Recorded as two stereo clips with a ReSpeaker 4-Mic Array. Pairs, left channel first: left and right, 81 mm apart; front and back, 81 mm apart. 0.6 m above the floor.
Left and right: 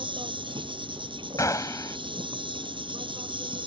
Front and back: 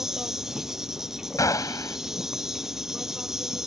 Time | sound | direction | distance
0.0 | an insect | 95° right | ?
1.4 | a gunshot | 45° left | ?